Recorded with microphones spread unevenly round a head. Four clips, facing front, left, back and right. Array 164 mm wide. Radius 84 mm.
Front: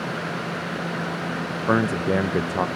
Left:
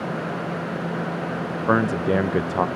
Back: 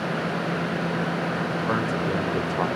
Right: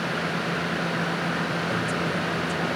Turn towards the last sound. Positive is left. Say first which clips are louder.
# left 7 dB, front 7 dB
turn(degrees=35)